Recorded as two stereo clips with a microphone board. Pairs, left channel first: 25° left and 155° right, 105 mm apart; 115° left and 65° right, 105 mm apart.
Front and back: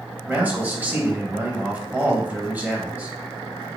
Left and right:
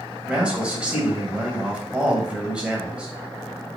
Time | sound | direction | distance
0.3 | a man speaking | 125° right | 0.9 m